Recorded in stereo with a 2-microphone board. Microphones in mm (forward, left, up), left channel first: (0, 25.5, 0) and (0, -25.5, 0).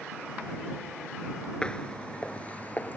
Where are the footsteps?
20° left (ahead or behind); by 3.0 s 30° left (ahead or behind).